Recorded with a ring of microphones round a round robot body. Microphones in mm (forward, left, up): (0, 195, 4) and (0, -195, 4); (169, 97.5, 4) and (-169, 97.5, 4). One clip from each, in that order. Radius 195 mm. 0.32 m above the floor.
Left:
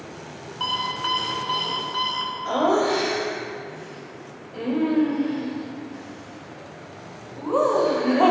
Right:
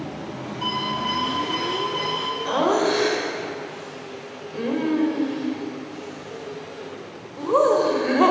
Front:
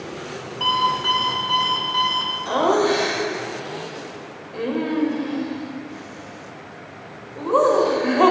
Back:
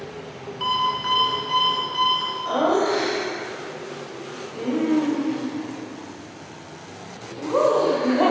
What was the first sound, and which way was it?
An alarm clock, 75° left.